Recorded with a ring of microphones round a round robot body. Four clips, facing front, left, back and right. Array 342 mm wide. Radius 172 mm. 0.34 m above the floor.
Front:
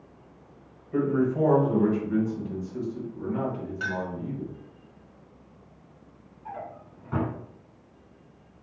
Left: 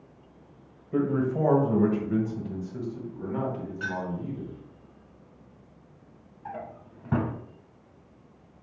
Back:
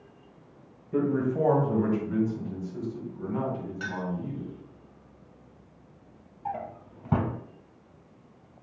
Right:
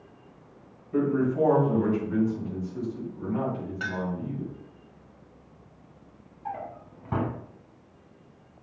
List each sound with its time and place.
0.9 s a man speaking: 125° left, 1.3 m; by 4.6 s 70° left, 3 m
3.8 s a clink: 85° right, 1.5 m
6.5 s a drawer: 155° left, 0.7 m